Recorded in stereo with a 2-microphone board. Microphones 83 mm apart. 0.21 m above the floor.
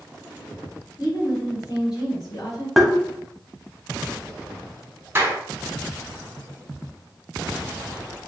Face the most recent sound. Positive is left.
turn(degrees=-25)  # may be behind; listen again after turning